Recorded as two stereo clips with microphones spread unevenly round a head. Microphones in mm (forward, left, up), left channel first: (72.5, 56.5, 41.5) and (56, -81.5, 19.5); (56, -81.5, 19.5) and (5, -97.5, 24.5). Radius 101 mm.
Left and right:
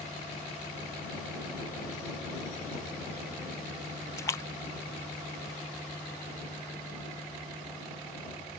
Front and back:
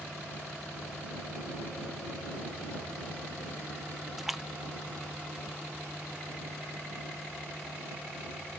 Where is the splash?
125° left.